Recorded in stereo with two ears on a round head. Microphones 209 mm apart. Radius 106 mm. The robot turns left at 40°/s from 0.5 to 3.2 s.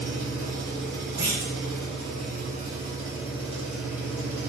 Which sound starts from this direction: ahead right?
An engine running, at 0.0 s.